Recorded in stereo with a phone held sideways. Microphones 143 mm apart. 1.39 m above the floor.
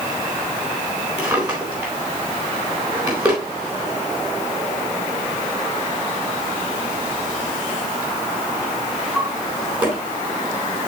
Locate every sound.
1.2 s a drawer: 10° right (ahead or behind), 3.5 m